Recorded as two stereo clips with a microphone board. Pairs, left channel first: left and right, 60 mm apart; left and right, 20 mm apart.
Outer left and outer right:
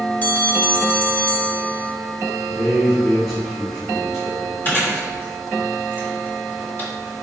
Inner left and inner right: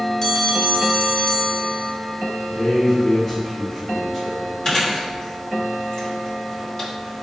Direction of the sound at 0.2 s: 25° left (ahead or behind).